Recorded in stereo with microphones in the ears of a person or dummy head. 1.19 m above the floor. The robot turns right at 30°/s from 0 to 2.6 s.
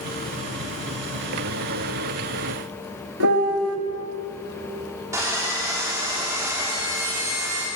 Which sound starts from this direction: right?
A piano, at 3.2 s.